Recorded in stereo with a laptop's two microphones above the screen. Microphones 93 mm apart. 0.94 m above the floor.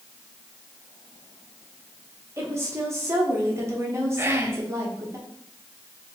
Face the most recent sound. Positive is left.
turn(degrees=-25)  # may be behind; listen again after turning